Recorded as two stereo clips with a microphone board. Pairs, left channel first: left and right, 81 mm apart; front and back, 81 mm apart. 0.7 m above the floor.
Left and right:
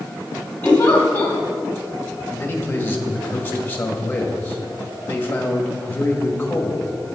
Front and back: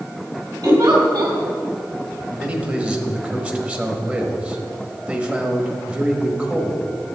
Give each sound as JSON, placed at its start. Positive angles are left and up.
{"t": 0.6, "sound": "a giggle", "azimuth_deg": 160, "distance_m": 2.0}
{"t": 2.3, "sound": "a man speaking", "azimuth_deg": 130, "distance_m": 1.3}